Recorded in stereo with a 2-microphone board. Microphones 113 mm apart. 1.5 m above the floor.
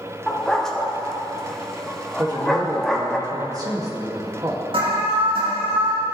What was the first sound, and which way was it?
A dog barking, 5° left (ahead or behind).